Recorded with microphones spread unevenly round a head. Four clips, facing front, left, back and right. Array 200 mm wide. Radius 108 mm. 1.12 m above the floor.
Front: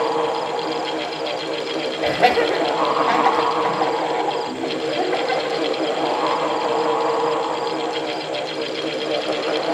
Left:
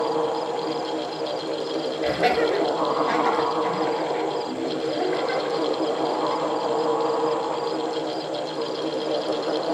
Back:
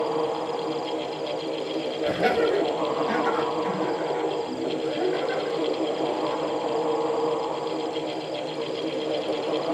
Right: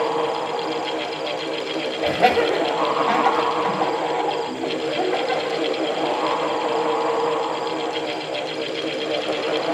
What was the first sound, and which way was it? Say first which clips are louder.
Laughter: right 4 dB, front 6 dB; 25° right.